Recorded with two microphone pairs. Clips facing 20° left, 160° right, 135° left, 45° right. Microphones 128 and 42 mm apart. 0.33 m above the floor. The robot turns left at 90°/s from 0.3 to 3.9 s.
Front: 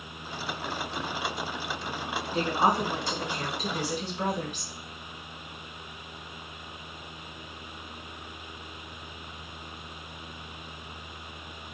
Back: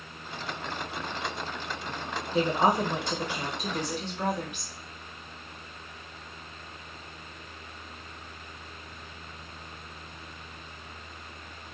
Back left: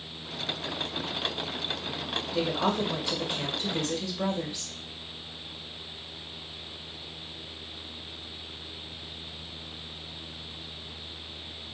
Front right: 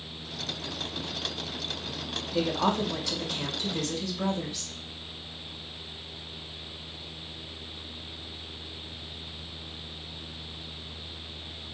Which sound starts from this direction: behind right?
A woman speaking, at 2.3 s.